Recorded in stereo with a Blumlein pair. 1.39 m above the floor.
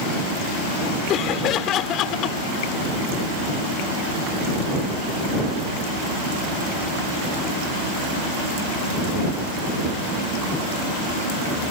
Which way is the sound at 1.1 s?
35° left.